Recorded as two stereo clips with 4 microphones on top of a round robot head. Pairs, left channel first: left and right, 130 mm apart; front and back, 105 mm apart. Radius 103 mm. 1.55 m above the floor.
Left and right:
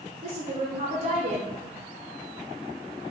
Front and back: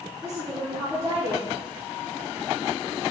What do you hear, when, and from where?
0.2 s a woman speaking: 110° right, 0.5 m